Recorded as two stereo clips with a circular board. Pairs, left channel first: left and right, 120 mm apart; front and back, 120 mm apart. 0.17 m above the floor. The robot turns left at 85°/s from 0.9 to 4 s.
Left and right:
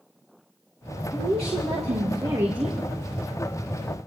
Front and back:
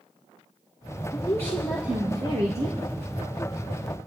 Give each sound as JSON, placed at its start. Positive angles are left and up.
{"t": 1.1, "sound": "a woman speaking", "azimuth_deg": -45, "distance_m": 2.5}